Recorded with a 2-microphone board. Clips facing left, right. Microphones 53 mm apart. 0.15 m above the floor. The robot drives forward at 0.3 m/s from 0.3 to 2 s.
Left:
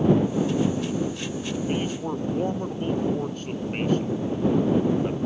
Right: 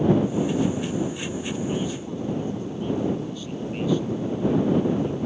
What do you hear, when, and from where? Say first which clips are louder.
1.7 s a man speaking: left 1 dB; 50° left (ahead or behind)